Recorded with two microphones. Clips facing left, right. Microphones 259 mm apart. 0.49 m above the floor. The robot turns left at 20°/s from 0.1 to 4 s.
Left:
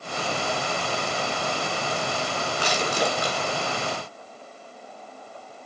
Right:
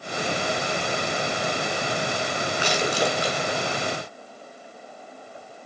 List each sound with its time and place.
2.6 s crushing: 40° left (ahead or behind), 6 m; by 3.4 s 55° left (ahead or behind), 6 m